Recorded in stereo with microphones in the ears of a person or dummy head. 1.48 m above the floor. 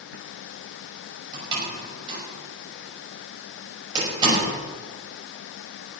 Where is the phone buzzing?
I don't hear a phone buzzing.